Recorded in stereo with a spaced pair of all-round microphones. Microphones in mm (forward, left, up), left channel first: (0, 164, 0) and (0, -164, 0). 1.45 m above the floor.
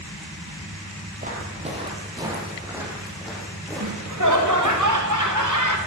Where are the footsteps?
25° right (ahead or behind), 2.5 m; by 4.8 s 5° left (ahead or behind), 5 m.